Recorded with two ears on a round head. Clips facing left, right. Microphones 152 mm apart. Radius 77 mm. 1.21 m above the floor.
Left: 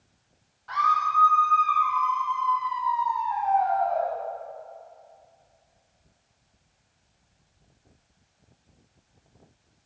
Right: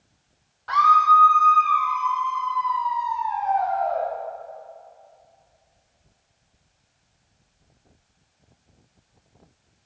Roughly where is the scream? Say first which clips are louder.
Right 8 dB; right.